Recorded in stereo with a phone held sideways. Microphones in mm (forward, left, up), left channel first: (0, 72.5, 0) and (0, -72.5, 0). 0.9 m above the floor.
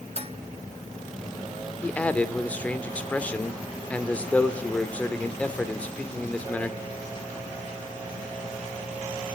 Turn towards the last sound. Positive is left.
turn(degrees=10)  # may be behind; listen again after turning